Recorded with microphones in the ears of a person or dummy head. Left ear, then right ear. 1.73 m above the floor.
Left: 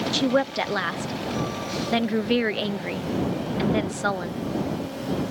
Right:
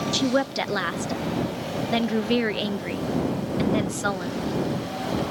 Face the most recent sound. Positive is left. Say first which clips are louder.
# left 1 dB
turn(degrees=15)  # may be behind; listen again after turning